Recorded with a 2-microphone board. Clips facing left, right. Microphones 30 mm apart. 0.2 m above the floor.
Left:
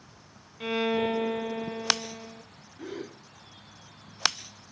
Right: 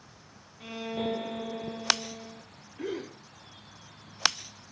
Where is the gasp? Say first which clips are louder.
Right 3 dB; 70° right (ahead or behind), 5.5 m.